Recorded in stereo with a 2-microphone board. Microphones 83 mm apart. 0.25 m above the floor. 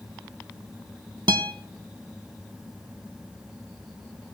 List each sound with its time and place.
1.3 s a guitar: 60° right (ahead or behind), 0.7 m